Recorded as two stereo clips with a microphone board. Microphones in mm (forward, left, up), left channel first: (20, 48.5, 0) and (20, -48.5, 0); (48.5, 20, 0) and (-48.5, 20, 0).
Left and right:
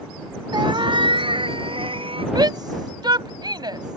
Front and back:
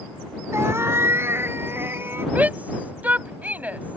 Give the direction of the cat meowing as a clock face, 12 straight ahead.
4 o'clock.